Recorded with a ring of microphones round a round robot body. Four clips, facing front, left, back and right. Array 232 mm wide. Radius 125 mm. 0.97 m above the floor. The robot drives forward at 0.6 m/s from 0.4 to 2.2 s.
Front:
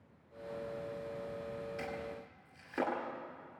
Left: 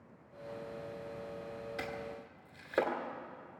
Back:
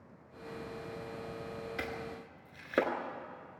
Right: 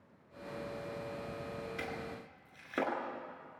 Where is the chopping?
170° left, 2.5 m.